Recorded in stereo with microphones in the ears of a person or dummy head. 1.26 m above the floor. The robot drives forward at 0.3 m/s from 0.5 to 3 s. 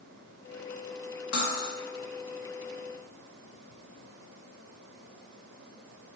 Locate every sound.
1.3 s cutlery clinking: 55° left (ahead or behind), 0.7 m